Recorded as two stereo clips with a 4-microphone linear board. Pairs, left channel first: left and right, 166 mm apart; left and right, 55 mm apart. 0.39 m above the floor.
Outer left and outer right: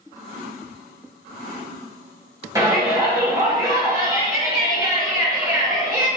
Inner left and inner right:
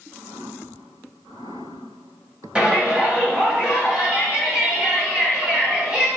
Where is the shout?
20° right (ahead or behind), 2.5 m.